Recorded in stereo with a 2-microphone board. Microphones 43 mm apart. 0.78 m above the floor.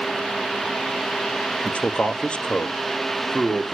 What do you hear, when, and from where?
1.6 s a man speaking: 30° left (ahead or behind), 0.8 m; by 3.8 s 20° left (ahead or behind), 1.7 m